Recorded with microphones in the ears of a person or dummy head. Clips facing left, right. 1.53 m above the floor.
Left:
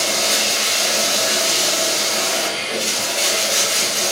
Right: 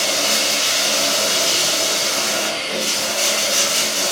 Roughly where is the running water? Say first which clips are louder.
Even; centre.